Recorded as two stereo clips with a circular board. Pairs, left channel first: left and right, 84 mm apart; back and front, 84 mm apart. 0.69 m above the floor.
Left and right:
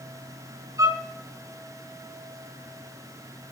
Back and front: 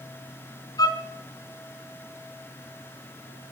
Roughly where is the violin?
Behind right.